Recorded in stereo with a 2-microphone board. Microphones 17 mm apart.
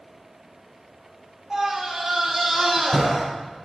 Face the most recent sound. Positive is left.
turn(degrees=-10)  # may be behind; listen again after turning